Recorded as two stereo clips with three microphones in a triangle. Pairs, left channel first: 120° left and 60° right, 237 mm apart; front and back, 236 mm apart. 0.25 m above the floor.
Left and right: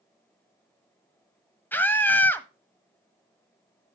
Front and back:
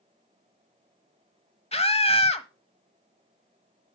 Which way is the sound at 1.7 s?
45° left.